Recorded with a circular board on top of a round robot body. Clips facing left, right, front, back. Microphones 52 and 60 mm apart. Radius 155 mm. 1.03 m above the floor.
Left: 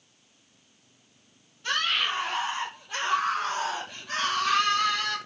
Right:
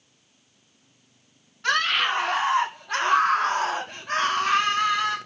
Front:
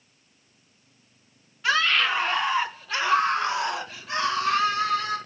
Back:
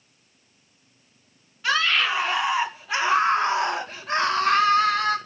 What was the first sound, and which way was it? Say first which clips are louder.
A scream: right 5 dB, even; 90° right.